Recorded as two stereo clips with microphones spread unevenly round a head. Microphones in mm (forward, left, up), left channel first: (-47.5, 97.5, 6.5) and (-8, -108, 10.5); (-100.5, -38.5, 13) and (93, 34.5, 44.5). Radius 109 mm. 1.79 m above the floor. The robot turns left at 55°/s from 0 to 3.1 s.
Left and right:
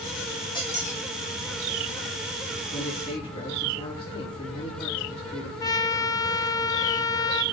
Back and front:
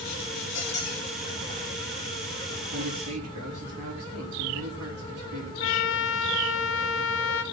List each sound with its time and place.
0.6 s a squeak: 170° left, 3.5 m; by 1.0 s 145° left, 3.5 m
2.7 s a man speaking: 55° left, 5.5 m; by 5.5 s 35° left, 5.5 m
5.6 s a trumpet: 170° left, 0.9 m